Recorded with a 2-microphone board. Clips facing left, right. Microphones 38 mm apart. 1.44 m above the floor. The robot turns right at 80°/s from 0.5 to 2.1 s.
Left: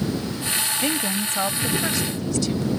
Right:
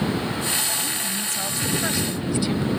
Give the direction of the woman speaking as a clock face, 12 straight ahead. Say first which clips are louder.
Left 4 dB; 9 o'clock.